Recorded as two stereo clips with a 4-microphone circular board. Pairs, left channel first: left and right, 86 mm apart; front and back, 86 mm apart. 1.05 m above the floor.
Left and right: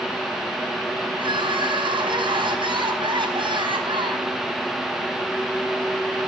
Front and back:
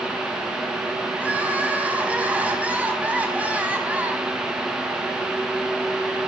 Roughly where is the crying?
Right.